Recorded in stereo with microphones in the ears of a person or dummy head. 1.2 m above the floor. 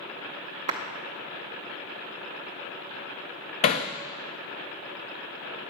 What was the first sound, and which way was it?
A clap, 35° right (ahead or behind).